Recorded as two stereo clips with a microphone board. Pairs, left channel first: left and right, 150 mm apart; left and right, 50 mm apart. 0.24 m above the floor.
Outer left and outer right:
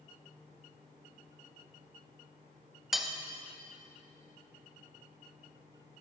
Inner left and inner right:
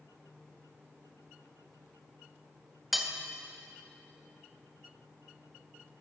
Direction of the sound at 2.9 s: Centre (ahead or behind).